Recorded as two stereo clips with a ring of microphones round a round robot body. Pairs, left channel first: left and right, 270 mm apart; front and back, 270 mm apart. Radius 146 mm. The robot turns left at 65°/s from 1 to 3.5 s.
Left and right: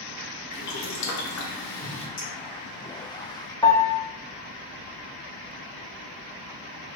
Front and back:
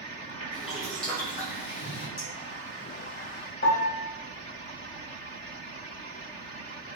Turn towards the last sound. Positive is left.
turn(degrees=25)